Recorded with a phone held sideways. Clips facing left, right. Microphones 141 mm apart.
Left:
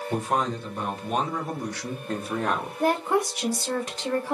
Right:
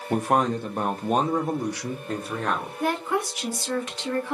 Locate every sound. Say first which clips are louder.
0.1 s a man speaking: right 5 dB; 65° right (ahead or behind), 1.0 m; by 2.7 s 15° left (ahead or behind), 0.9 m
2.8 s a woman speaking: left 3 dB; 35° left (ahead or behind), 1.1 m